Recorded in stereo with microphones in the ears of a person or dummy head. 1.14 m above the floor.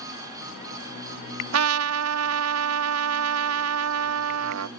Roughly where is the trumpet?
Right.